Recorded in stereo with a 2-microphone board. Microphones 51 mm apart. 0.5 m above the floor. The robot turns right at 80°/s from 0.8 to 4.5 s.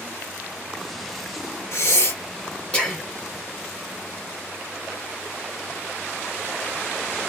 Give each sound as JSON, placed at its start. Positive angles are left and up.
{"t": 1.7, "sound": "breathing", "side_deg": 55, "distance_m": 1.5}